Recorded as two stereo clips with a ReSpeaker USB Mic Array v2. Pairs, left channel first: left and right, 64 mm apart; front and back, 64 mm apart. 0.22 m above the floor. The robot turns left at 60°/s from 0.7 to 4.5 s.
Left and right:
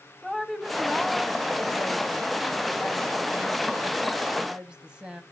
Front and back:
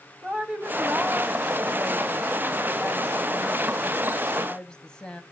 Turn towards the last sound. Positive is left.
turn(degrees=-40)